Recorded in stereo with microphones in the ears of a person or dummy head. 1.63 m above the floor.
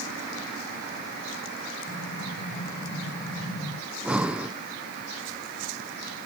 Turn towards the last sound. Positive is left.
turn(degrees=-10)  # may be behind; listen again after turning